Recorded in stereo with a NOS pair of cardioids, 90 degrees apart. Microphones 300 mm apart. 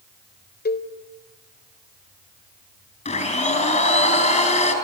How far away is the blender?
About 6.5 m.